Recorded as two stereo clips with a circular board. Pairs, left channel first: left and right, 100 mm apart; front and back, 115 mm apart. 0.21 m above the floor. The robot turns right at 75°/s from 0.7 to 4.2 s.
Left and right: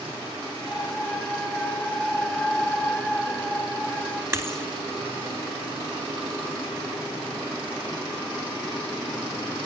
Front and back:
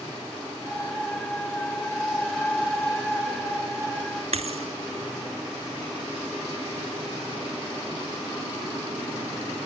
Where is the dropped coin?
150° right, 1.6 m.